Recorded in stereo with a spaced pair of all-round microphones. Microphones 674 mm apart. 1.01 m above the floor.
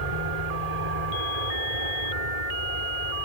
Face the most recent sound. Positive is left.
turn(degrees=-65)  # may be behind; listen again after turning